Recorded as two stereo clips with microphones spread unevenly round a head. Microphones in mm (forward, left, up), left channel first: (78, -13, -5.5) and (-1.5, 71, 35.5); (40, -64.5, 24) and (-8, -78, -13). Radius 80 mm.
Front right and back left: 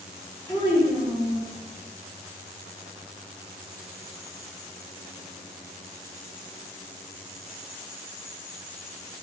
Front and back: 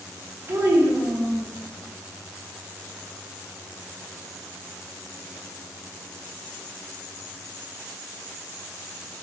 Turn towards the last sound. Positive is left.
turn(degrees=-115)